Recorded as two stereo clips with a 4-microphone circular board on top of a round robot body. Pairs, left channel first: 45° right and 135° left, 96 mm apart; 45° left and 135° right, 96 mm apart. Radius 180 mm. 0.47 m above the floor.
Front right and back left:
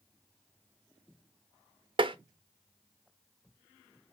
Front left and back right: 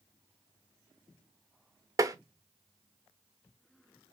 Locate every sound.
2.0 s tapping: 170° left, 0.5 m